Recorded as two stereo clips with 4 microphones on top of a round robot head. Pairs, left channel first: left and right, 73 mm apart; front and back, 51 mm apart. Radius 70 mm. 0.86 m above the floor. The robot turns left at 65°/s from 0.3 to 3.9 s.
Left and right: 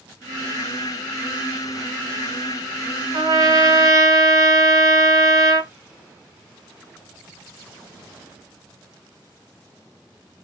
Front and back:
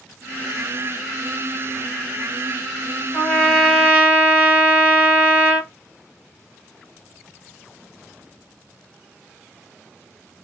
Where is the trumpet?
70° right, 1.7 m; by 5.7 s 120° right, 1.7 m.